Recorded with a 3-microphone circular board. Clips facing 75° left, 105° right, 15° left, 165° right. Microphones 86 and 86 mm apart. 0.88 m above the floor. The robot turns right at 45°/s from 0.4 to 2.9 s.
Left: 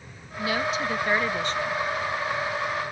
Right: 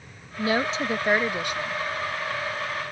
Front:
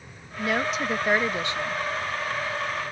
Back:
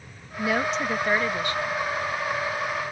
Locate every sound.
0.4 s a woman speaking: 80° right; by 1.8 s 20° right